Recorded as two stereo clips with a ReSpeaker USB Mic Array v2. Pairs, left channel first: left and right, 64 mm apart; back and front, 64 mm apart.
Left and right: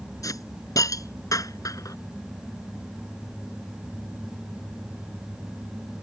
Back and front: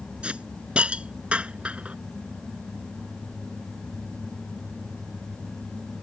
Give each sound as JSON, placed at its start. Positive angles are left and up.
{"t": 0.2, "sound": "a hiss", "azimuth_deg": 70}